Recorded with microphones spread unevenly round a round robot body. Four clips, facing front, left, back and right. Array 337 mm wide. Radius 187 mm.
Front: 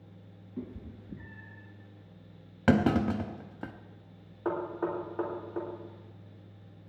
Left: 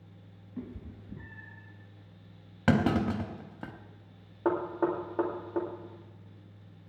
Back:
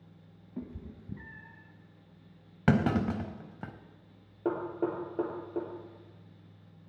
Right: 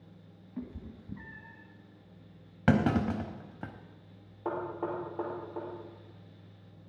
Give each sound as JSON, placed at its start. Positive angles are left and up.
{"t": 0.6, "sound": "a cat meowing", "azimuth_deg": 175, "distance_m": 1.5}
{"t": 2.7, "sound": "a clunk", "azimuth_deg": 150, "distance_m": 0.7}
{"t": 4.5, "sound": "knocking", "azimuth_deg": 135, "distance_m": 2.5}